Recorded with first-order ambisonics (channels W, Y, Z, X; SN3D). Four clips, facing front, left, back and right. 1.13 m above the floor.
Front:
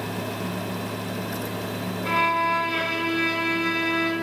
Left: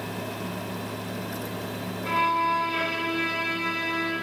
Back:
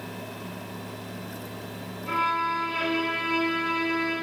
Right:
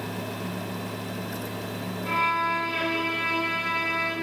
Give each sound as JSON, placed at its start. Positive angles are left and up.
{"t": 2.0, "sound": "a violin", "azimuth_deg": 10, "distance_m": 5.0}